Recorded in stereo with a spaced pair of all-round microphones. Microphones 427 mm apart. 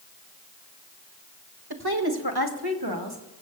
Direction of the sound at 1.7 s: 60° right (ahead or behind).